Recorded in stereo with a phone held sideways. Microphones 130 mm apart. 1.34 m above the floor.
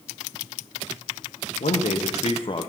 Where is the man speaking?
70° left (ahead or behind), 1.0 m; by 2.7 s 35° left (ahead or behind), 0.7 m.